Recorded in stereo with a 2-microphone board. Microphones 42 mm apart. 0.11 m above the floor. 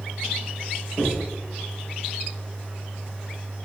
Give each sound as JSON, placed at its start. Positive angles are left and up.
{"t": 1.0, "sound": "knocking", "side_deg": 75, "distance_m": 5.0}